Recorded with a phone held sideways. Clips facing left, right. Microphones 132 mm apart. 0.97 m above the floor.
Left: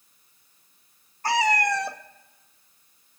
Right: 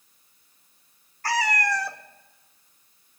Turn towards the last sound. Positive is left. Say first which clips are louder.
# left 3 dB
turn(degrees=20)  # may be behind; listen again after turning